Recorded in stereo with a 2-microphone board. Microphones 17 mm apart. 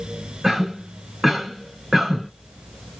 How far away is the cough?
About 1.6 m.